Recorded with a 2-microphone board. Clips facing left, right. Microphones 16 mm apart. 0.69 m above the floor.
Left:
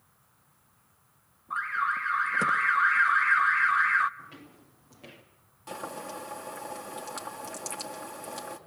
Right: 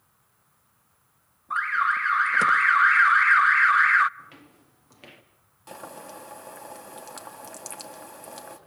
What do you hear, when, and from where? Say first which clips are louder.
1.5 s an alarm: right 5 dB; 25° right (ahead or behind), 0.6 m
4.2 s footsteps: even; 20° right (ahead or behind), 3.5 m; by 5.2 s 45° right (ahead or behind), 3.5 m
5.7 s boiling: left 3 dB; centre (ahead or behind), 3.5 m